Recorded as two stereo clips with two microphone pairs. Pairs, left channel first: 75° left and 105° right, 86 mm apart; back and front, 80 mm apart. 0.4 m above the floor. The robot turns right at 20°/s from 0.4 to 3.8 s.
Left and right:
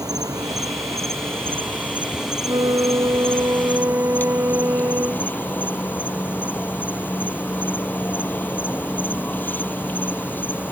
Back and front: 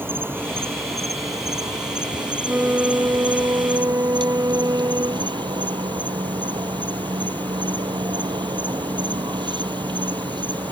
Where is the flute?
70° right; by 5.3 s 45° right.